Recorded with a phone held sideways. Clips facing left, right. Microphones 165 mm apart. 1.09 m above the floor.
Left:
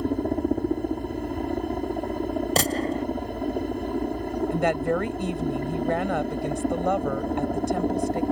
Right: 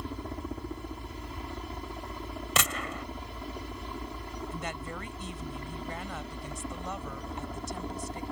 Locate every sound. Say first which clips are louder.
0.0 s a helicopter: left 14 dB; 55° left (ahead or behind)
2.6 s a gunshot: left 10 dB; 40° left (ahead or behind)
4.5 s a woman speaking: left 18 dB; 70° left (ahead or behind)